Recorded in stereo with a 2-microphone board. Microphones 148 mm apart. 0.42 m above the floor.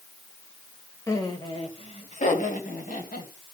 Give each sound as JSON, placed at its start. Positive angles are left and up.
{"t": 1.1, "sound": "laughter", "side_deg": 20, "distance_m": 1.9}